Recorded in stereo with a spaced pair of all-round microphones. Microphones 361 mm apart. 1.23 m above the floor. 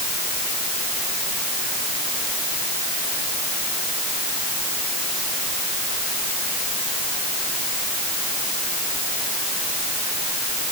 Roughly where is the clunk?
No clunk in this recording.